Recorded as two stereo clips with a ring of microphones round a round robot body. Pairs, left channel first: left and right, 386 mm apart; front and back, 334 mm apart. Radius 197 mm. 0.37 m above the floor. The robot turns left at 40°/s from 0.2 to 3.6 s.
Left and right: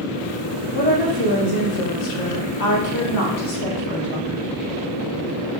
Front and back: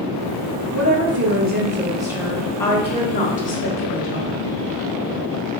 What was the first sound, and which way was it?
A woman speaking, 155° left.